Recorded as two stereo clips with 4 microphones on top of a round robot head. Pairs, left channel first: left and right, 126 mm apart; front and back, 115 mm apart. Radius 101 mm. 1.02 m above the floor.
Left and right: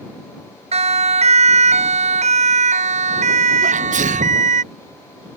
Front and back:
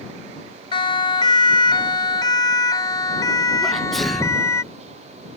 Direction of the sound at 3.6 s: 90° right.